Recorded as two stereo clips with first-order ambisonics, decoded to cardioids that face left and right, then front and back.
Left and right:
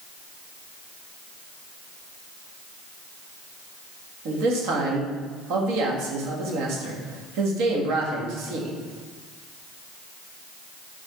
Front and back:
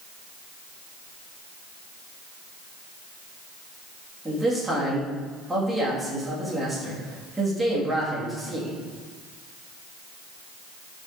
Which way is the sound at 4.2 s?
95° right.